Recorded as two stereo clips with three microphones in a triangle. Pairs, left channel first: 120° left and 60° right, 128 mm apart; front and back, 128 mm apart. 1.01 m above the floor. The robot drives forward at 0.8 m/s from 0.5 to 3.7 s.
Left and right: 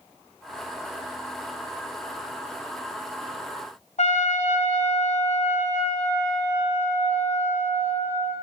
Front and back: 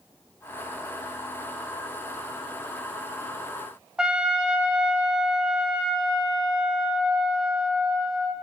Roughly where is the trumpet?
Left.